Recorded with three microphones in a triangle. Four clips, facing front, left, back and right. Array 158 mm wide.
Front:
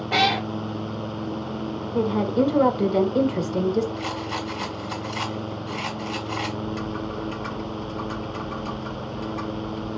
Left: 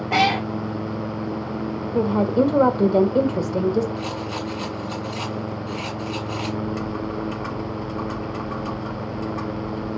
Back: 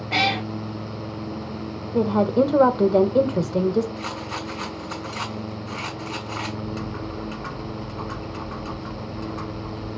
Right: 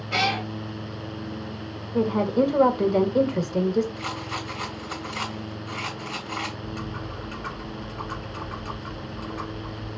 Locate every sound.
0.1 s a cat meowing: 70° left, 1.2 m
1.9 s a woman speaking: 145° left, 0.9 m
4.0 s a rattle: 140° right, 2.5 m
6.6 s typing on a keyboard: 110° left, 3 m